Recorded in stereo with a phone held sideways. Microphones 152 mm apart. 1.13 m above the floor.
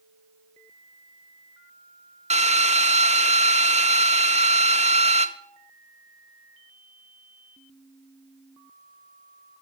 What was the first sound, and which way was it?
A drill, 45° right (ahead or behind).